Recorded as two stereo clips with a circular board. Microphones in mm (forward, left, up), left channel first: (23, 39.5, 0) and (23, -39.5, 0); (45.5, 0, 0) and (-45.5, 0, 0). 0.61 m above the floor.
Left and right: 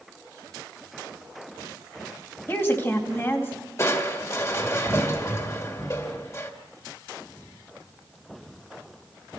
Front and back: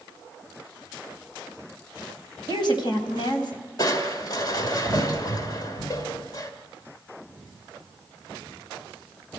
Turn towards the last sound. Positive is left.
turn(degrees=40)